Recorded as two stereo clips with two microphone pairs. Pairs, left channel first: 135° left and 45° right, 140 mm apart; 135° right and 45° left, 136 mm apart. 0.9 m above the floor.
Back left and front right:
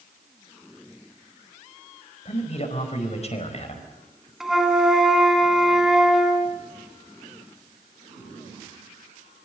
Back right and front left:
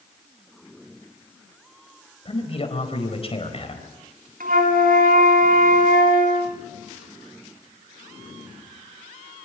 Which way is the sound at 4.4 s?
40° left.